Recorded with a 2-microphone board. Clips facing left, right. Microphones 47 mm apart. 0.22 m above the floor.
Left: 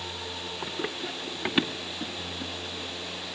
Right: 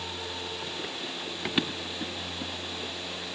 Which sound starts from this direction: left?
Running footsteps, at 0.6 s.